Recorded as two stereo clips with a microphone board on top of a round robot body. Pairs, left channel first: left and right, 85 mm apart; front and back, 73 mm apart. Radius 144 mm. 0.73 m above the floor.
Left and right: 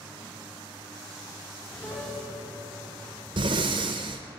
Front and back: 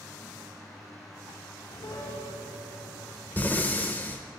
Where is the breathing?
65° right, 0.6 m.